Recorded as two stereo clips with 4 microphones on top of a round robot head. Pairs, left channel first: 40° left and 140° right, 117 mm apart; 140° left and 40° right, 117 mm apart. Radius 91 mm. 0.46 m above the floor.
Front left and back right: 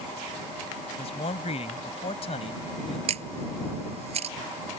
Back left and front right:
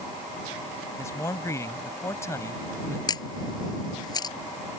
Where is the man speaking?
75° left.